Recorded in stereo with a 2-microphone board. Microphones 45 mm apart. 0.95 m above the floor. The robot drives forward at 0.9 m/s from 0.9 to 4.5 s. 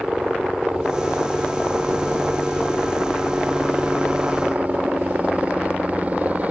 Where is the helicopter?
15° right (ahead or behind); by 6.5 s 35° right (ahead or behind).